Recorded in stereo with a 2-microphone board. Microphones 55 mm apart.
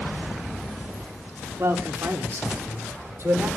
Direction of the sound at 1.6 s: 65° right (ahead or behind).